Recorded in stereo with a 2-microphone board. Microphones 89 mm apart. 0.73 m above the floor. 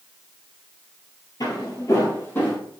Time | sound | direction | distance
1.4 | footsteps | 50° left (ahead or behind) | 1.1 m